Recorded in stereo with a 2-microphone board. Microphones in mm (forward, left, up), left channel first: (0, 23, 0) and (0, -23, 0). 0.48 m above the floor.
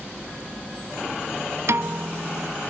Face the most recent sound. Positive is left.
turn(degrees=-65)  # may be behind; listen again after turning